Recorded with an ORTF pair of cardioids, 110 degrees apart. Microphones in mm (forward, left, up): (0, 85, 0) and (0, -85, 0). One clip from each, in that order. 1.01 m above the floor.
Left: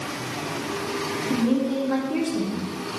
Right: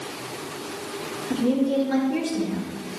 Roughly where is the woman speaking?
Ahead.